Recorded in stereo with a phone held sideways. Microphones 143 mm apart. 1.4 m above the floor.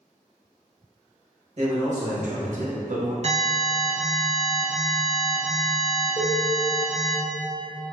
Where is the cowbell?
35° left (ahead or behind), 0.9 m.